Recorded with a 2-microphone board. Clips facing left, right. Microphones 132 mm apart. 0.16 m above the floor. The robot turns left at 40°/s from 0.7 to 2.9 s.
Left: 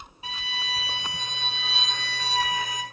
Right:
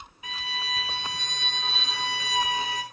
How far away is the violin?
About 0.7 m.